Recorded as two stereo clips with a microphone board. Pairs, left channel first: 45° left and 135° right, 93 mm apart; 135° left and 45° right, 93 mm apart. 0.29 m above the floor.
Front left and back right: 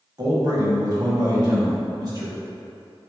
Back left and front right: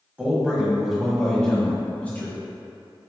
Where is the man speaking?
115° right, 1.8 m; by 2.3 s 160° right, 2 m.